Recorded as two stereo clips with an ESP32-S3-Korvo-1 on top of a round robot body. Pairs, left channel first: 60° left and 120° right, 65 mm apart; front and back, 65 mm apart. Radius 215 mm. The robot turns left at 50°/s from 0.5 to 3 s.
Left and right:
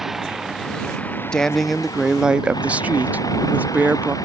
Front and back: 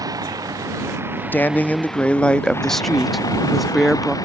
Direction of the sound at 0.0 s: 155° left.